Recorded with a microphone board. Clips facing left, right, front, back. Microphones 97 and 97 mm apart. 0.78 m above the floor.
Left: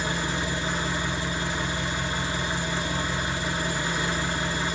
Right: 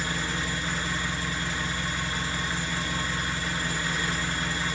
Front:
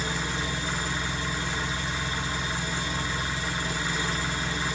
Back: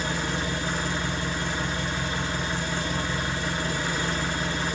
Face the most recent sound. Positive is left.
turn(degrees=160)